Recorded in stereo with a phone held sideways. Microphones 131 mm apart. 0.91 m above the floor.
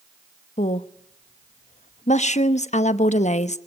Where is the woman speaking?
60° left (ahead or behind), 0.9 m.